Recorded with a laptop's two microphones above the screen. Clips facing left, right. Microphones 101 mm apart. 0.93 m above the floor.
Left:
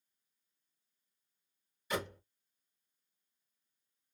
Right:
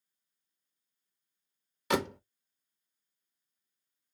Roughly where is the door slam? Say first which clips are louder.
Right 8 dB; right.